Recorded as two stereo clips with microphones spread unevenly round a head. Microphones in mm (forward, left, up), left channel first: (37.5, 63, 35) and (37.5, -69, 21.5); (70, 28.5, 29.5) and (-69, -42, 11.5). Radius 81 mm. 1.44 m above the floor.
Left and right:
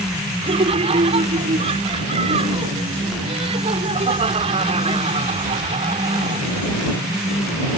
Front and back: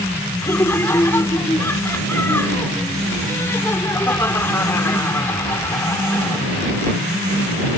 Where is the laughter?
50° right.